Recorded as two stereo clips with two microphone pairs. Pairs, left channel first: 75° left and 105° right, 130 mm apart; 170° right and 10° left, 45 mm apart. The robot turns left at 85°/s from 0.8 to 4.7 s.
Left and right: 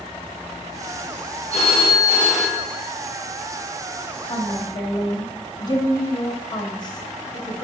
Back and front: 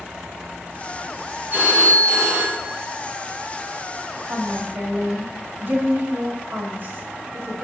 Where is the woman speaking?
65° left, 2 m; by 7.6 s 25° left, 2 m.